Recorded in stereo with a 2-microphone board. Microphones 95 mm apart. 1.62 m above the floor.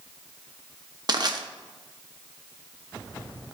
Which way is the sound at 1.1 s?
50° right (ahead or behind).